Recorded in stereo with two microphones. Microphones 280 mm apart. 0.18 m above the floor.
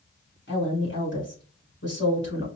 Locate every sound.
0.5 s a woman speaking: 45° left (ahead or behind), 2 m